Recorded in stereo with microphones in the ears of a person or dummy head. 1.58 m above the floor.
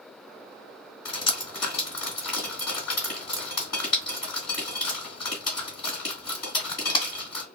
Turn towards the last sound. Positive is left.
turn(degrees=30)  # may be behind; listen again after turning